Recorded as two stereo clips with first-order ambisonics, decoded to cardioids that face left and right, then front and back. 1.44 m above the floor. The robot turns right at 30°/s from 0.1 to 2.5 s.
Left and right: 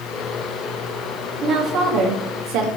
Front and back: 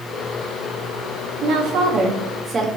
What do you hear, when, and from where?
1.4 s a woman speaking: 145° right, 0.7 m; by 2.7 s 115° right, 0.7 m